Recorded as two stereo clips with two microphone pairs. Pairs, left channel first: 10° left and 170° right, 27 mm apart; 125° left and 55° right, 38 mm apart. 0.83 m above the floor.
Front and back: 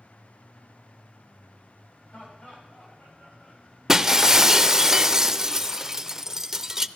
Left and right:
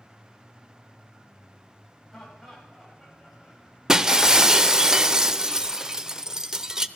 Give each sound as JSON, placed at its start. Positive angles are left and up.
{"t": 2.1, "sound": "laughter", "azimuth_deg": 40, "distance_m": 6.5}
{"t": 3.9, "sound": "breaking glass", "azimuth_deg": -115, "distance_m": 0.6}